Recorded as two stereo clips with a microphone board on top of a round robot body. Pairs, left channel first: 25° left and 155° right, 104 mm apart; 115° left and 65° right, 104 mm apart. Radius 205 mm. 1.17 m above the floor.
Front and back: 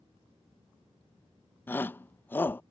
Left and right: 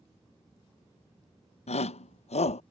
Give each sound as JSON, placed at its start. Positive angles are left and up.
{"t": 1.7, "sound": "a shout", "azimuth_deg": 95}